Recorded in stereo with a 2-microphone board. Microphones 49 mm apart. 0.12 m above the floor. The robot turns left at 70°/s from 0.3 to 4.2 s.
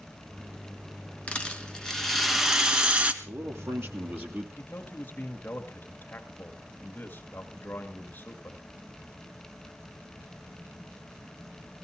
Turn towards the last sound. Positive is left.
turn(degrees=35)  # may be behind; listen again after turning